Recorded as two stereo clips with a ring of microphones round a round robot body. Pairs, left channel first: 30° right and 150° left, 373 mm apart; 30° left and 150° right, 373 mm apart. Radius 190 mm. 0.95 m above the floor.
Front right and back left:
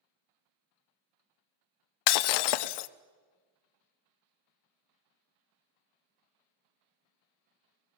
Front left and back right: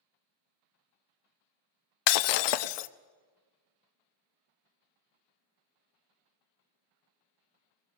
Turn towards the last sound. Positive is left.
turn(degrees=0)